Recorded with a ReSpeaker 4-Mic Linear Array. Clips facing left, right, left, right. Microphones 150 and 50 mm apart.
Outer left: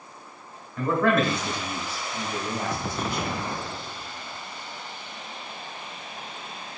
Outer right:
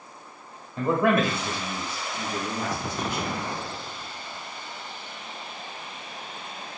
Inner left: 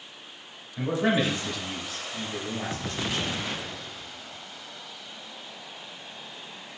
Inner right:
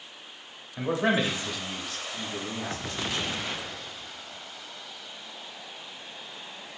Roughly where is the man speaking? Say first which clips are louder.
Even, inner left 1 dB; right.